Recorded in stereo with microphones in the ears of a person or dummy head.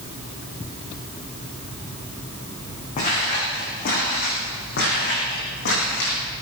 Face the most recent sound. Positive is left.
turn(degrees=60)  # may be behind; listen again after turning